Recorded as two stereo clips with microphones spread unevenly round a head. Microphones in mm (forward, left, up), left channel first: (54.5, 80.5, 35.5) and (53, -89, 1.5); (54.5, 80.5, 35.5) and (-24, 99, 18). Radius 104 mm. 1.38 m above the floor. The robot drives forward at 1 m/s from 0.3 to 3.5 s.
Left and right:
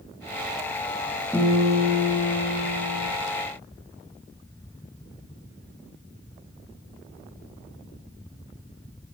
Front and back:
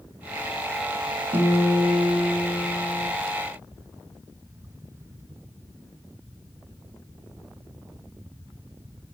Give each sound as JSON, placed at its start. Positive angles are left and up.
{"t": 1.3, "sound": "a guitar", "azimuth_deg": 175, "distance_m": 1.0}